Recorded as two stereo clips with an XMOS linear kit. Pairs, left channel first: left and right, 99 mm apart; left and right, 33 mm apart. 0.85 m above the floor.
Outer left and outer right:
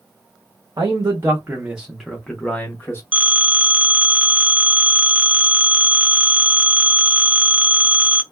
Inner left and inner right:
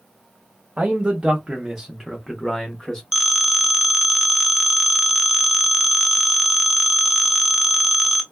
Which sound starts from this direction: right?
A man speaking, at 0.8 s.